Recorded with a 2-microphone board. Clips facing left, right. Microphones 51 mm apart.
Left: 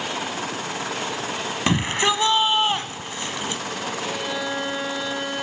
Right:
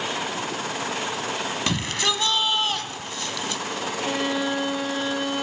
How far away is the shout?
About 1.0 m.